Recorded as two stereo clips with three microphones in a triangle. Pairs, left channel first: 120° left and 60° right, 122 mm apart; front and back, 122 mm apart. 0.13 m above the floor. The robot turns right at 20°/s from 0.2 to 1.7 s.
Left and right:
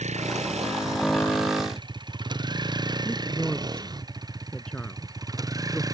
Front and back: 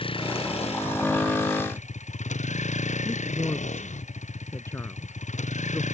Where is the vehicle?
40° right; by 5.9 s straight ahead.